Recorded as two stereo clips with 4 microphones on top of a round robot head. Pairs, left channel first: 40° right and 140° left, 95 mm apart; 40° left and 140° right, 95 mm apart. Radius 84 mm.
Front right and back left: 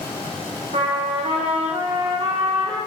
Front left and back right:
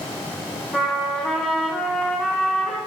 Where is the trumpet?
130° left, 3.5 m.